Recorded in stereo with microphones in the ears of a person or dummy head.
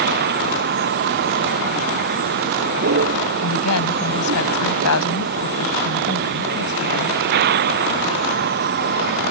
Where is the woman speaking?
85° left.